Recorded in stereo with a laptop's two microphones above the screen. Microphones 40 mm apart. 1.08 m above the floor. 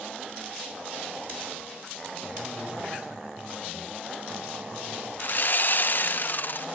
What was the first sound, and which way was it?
A man speaking, 35° right (ahead or behind).